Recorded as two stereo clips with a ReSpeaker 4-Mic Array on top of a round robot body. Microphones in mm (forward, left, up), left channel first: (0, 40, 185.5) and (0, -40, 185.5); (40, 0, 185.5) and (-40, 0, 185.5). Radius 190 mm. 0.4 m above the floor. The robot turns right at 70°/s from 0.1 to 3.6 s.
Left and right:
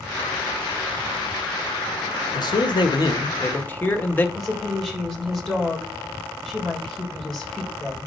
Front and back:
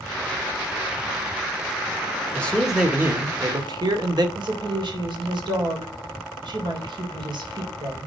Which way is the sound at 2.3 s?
70° left.